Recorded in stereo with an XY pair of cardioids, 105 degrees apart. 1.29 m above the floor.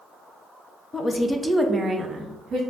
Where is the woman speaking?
35° left, 0.5 m; by 2.6 s 50° right, 0.8 m.